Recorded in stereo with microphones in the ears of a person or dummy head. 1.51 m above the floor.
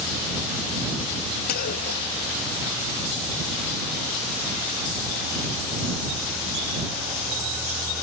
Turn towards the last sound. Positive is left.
turn(degrees=50)  # may be behind; listen again after turning